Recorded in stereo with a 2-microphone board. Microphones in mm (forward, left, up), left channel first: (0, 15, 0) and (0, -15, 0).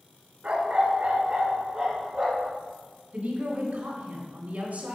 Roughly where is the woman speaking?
Right.